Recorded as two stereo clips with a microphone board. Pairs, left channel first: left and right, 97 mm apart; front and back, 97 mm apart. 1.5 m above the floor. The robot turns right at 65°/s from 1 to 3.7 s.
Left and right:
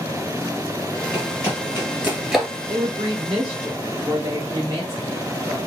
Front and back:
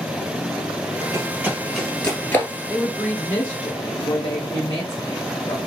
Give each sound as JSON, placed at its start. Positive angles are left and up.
{"t": 1.1, "sound": "running footsteps", "azimuth_deg": -165, "distance_m": 1.8}
{"t": 2.7, "sound": "a woman speaking", "azimuth_deg": -100, "distance_m": 1.9}